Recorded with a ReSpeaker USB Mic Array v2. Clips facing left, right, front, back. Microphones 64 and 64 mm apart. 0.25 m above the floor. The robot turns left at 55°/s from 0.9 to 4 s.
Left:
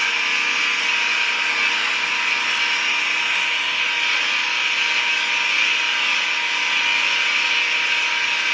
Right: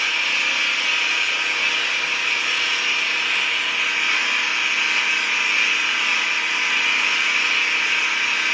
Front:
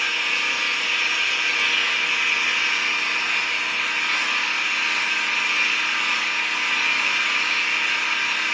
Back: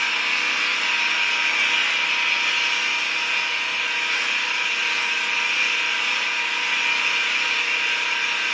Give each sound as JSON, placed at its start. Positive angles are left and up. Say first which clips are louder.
{"t": 0.0, "sound": "an engine running", "louder": "left 1 dB, back 1 dB", "azimuth_deg": 150, "distance_m": 1.0}